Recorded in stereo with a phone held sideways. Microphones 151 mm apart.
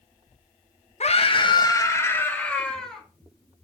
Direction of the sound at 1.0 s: 50° left (ahead or behind).